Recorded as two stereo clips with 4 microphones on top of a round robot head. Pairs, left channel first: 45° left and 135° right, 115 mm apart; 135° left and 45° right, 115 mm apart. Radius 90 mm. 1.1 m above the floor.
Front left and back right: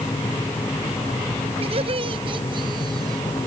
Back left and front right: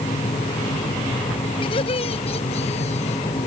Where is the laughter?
175° right; by 3.2 s 165° left.